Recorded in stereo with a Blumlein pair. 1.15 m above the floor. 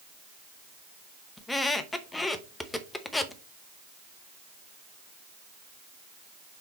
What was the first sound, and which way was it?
A squeak, 10° left.